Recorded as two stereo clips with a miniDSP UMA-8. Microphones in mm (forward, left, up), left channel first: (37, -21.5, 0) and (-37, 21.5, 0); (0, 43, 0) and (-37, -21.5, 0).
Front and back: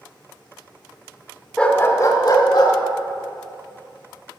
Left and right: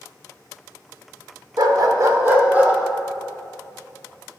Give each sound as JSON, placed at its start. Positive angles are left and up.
{"t": 1.6, "sound": "a dog barking", "azimuth_deg": -110, "distance_m": 1.0}